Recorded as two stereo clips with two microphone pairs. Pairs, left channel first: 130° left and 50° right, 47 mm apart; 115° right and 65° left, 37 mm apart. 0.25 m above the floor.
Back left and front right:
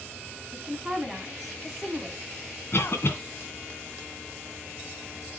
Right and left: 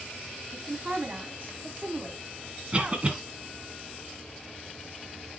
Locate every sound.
0.5 s a woman speaking: 30° left, 2 m
2.7 s a cough: 125° left, 1.9 m